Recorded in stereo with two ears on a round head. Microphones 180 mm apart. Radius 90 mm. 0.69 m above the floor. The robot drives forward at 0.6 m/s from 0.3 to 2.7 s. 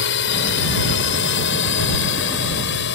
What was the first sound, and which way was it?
A drone, 60° left (ahead or behind).